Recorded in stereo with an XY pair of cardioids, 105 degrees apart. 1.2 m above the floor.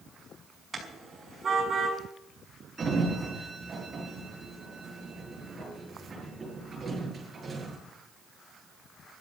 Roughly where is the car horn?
Ahead right.